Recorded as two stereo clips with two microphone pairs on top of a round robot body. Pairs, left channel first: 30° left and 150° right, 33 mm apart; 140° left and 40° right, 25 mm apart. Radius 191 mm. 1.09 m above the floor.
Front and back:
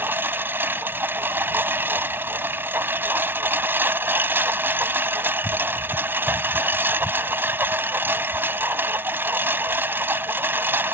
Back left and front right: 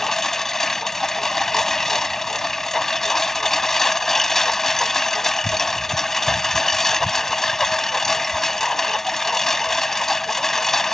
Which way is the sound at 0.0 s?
145° right.